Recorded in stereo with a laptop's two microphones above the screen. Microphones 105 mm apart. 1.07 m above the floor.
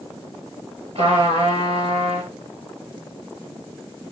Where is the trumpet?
65° right (ahead or behind), 5 m.